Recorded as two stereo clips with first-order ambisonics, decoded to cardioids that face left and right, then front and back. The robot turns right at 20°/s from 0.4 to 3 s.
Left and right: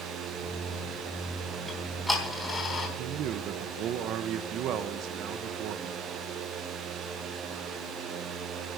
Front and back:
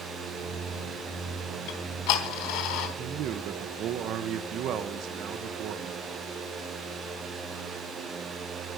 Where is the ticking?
Straight ahead, 3.5 m; by 2.9 s 20° left, 3.5 m.